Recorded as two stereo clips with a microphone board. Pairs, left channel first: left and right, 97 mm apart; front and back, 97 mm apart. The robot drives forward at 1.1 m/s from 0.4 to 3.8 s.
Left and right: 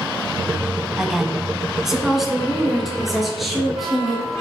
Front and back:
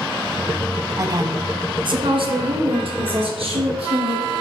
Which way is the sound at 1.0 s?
165° right.